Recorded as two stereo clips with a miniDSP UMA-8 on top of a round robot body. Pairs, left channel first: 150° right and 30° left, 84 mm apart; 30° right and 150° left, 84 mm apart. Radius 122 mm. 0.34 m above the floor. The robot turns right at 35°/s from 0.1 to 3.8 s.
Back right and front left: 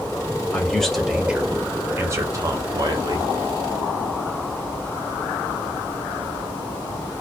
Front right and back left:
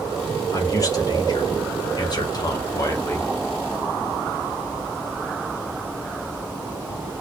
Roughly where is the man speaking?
Right.